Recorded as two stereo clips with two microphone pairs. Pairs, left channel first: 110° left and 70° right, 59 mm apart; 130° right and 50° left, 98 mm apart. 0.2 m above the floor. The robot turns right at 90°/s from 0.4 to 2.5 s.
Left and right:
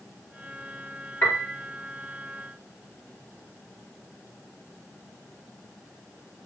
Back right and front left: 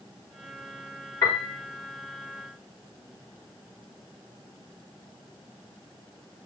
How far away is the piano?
About 5.5 m.